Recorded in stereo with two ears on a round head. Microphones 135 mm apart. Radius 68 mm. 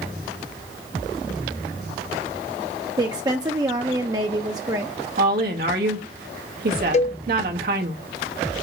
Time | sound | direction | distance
3.0 | a woman speaking | 25° right (ahead or behind) | 0.6 m
5.2 | a woman speaking | 65° right (ahead or behind) | 1.4 m
6.9 | a cowbell | 45° left (ahead or behind) | 0.7 m